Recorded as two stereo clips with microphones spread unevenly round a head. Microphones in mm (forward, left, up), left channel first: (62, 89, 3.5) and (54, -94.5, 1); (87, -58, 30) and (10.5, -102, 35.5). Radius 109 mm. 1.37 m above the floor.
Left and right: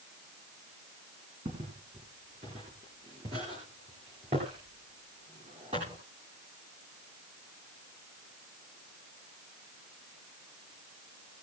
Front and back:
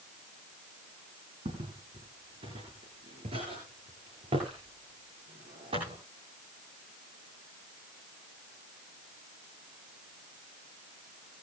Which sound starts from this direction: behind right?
Footsteps, at 1.4 s.